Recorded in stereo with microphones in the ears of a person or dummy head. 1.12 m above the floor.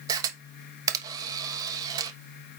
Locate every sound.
0.1 s a camera shutter: 15° right (ahead or behind), 1.1 m